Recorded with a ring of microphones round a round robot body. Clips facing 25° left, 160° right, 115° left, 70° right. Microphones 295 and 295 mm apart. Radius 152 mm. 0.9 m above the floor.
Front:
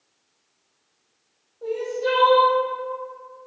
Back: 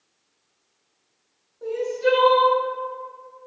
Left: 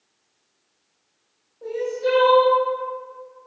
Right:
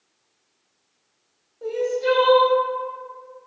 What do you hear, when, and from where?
1.6 s crying: 110° right, 1.2 m